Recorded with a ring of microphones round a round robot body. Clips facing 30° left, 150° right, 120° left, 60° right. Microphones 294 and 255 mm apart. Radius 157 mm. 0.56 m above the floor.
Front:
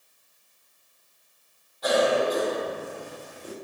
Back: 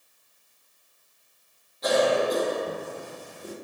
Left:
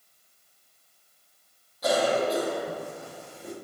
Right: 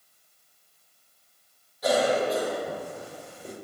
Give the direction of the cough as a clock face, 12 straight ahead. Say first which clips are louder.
Even, right 1 dB; 7 o'clock.